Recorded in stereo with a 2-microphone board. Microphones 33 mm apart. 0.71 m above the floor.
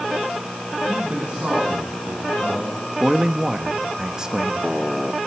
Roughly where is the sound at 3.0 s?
Centre.